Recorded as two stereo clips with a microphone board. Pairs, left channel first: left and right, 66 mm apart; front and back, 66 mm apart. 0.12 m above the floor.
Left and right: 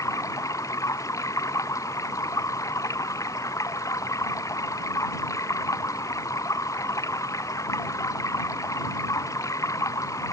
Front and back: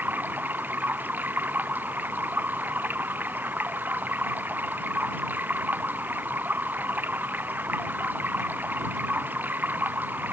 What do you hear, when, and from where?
0.0 s running water: 120° left